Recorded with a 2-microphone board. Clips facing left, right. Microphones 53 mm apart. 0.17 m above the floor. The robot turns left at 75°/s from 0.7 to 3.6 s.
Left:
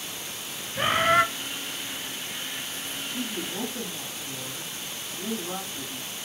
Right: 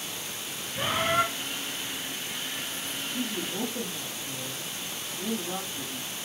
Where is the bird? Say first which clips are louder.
Left 5 dB; 130° left, 0.6 m; by 1.2 s 90° left, 0.6 m.